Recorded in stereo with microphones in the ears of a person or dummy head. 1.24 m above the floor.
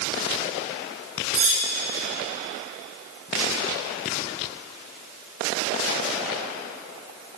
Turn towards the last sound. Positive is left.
turn(degrees=-70)  # may be behind; listen again after turning